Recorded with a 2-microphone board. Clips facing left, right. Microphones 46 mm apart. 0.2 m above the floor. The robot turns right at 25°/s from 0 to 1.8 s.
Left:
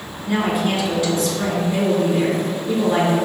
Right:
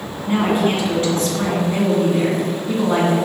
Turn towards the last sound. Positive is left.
turn(degrees=-100)